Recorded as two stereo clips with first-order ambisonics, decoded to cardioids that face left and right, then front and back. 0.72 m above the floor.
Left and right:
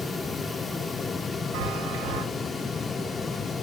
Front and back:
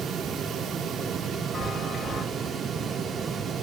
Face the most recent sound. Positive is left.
turn(degrees=-85)